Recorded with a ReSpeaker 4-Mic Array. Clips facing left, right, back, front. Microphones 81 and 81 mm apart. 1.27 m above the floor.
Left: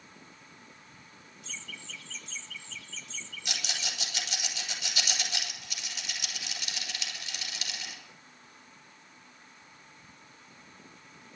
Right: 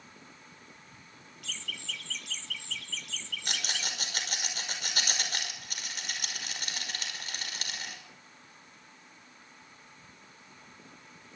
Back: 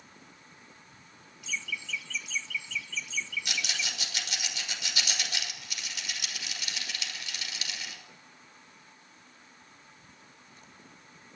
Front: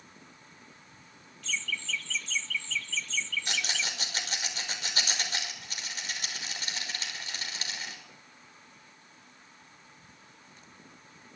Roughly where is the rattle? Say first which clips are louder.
Right 2 dB, front 2 dB; ahead right.